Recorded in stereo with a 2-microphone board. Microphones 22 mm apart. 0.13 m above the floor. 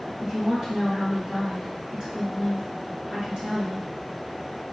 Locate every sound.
0.2 s a woman speaking: 40° right (ahead or behind), 1.7 m